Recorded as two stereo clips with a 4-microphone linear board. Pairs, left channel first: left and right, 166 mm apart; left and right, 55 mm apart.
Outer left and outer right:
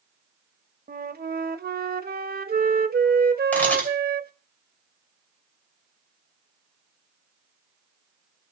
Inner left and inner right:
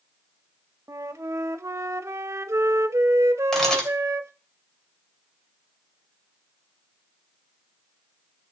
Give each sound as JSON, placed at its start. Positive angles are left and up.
{"t": 0.9, "sound": "a flute", "side_deg": -70, "distance_m": 0.6}
{"t": 3.5, "sound": "a camera shutter", "side_deg": 10, "distance_m": 2.5}